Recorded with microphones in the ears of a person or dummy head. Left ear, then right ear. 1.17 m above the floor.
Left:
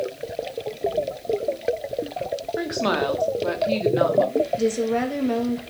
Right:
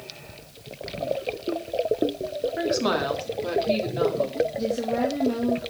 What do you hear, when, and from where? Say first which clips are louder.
2.6 s a woman speaking: left 1 dB; 5° left (ahead or behind), 2 m; by 4.5 s 35° left (ahead or behind), 2.5 m
4.6 s a woman speaking: left 3 dB; 65° left (ahead or behind), 1.7 m